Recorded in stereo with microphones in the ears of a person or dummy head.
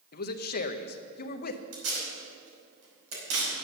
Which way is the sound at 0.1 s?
50° left (ahead or behind).